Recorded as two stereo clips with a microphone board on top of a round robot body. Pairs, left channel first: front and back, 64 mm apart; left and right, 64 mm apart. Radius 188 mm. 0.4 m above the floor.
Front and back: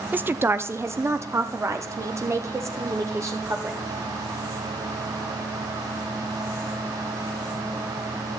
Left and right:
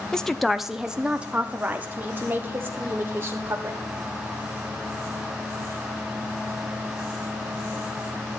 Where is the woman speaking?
155° left, 0.8 m; by 3.8 s 140° right, 2 m.